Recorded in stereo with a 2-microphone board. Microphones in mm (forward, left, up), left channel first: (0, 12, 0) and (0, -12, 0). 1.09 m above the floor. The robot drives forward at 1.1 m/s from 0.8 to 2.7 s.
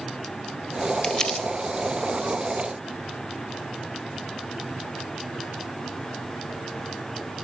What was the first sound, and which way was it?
Crumpling, 30° left (ahead or behind).